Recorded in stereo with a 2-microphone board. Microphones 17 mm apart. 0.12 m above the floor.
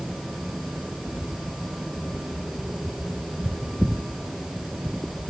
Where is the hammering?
No hammering in this recording.